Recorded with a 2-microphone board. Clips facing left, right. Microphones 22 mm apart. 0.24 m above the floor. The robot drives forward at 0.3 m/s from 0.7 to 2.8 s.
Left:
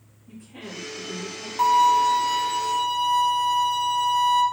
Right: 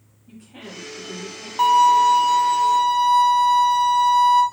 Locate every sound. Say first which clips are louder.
0.3 s a woman speaking: even; 30° right (ahead or behind), 1.2 m
1.6 s a violin: right 3 dB; 30° right (ahead or behind), 0.6 m